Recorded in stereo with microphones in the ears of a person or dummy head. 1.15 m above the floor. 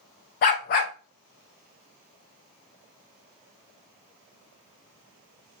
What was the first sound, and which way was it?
A dog barking, 35° left (ahead or behind).